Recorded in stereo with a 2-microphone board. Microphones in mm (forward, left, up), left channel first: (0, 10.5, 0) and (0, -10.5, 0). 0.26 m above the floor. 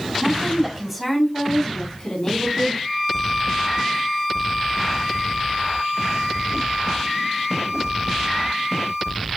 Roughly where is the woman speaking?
Right.